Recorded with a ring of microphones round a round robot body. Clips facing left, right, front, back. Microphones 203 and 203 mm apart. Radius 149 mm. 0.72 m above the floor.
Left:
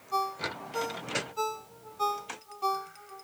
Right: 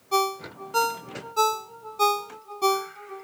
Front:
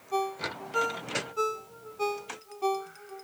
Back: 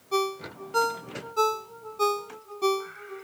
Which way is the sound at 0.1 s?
120° right.